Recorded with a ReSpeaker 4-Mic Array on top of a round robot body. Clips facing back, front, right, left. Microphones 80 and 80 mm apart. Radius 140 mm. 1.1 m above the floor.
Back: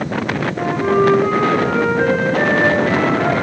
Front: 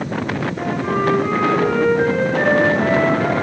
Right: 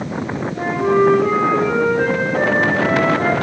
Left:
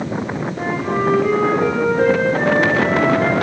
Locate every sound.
0.6 s a flute: 110° right, 2 m